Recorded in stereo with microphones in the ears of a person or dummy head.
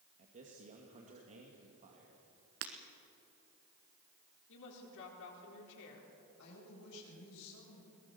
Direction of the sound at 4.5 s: 70° left (ahead or behind).